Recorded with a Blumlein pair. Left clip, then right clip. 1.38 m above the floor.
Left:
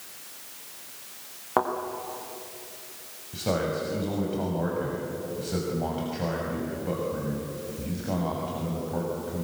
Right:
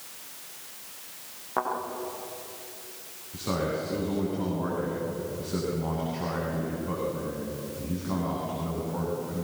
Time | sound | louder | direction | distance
1.6 | a thud | left 4 dB | 65° left | 6.5 m
3.3 | a man speaking | left 2 dB | 30° left | 7 m